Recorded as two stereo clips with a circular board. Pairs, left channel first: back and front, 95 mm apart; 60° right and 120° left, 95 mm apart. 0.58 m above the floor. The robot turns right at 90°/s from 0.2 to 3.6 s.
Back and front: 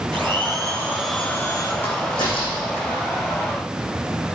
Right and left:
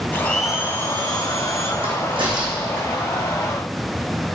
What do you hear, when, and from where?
0.1 s a blender: 10° left, 1.3 m; by 1.7 s 145° left, 1.3 m
1.8 s a crack: 110° left, 4.5 m; by 3.0 s 140° right, 4.5 m